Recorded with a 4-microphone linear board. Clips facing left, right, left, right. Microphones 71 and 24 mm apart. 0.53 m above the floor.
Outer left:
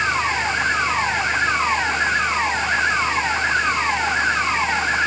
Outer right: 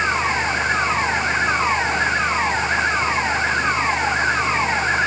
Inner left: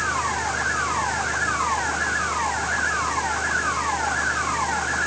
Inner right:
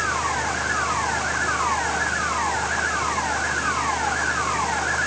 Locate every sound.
Only background noise.